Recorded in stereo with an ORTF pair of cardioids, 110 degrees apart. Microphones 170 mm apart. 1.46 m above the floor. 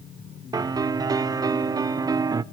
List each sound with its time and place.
0.5 s a piano: 20° right, 0.6 m